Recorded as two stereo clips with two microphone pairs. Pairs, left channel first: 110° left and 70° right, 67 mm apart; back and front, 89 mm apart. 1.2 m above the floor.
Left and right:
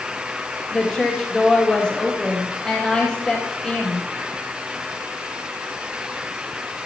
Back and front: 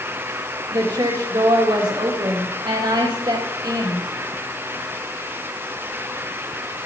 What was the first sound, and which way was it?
A woman speaking, 30° left.